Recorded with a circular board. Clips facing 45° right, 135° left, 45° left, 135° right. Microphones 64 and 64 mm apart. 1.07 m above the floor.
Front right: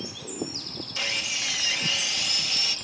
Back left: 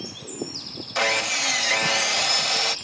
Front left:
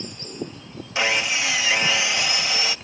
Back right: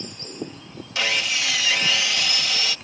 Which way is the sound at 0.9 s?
110° left.